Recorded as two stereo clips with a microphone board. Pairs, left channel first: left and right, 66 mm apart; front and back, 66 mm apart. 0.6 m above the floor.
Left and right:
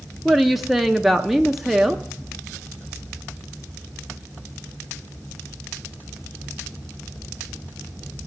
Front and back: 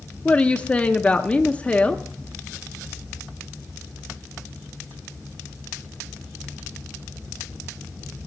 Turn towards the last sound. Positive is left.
turn(degrees=-5)